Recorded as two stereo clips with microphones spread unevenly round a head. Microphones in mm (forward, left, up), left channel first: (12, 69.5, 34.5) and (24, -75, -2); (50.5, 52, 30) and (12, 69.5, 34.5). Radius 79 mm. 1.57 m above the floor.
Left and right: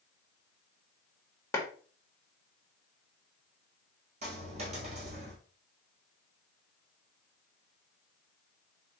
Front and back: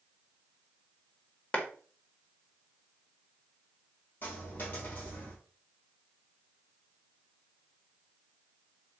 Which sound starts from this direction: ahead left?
A clap, at 1.5 s.